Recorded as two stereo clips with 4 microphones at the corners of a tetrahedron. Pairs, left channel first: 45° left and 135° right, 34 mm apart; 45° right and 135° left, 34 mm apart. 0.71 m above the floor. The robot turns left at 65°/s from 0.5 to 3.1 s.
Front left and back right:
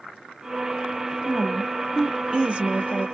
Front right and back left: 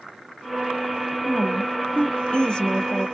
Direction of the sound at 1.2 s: 15° right.